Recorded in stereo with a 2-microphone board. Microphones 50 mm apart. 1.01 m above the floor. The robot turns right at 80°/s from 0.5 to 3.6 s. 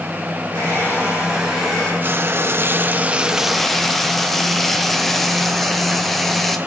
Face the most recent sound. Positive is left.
turn(degrees=10)